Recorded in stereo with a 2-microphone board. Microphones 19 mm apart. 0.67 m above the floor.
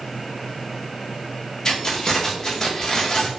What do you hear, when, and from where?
1.6 s keys jangling: 30° left (ahead or behind), 0.7 m